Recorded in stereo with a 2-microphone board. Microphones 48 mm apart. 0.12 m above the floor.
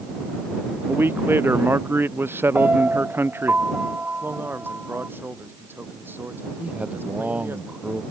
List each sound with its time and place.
0.9 s a man speaking: 50° right (ahead or behind)
2.5 s a piano: 30° right (ahead or behind)
4.2 s a man speaking: 40° right (ahead or behind)
6.6 s a man speaking: 25° right (ahead or behind)